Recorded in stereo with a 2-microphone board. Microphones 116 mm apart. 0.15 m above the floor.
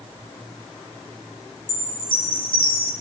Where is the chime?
45° left (ahead or behind), 2.5 m.